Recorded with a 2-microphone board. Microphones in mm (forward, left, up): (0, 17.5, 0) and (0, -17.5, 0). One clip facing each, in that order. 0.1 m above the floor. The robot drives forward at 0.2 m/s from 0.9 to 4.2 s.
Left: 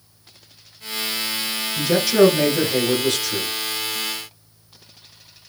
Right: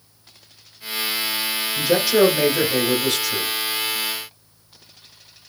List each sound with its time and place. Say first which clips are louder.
1.8 s a man speaking: left 1 dB; 10° right (ahead or behind), 1.2 m